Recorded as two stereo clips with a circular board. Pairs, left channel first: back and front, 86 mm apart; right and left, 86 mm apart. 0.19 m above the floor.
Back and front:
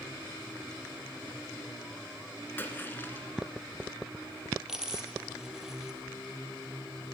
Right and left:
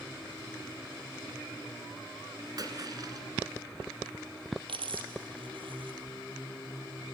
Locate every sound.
2.6 s a splash: 120° left, 1.7 m
4.7 s a dropped coin: 85° left, 2.0 m